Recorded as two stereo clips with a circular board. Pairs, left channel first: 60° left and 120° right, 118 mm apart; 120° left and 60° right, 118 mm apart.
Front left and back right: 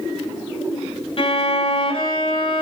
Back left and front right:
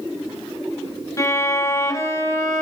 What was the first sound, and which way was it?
A violin, 65° left.